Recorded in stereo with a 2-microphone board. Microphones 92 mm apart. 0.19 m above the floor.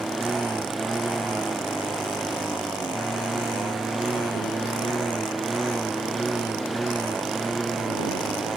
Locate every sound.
0.0 s a lawn mower: centre (ahead or behind)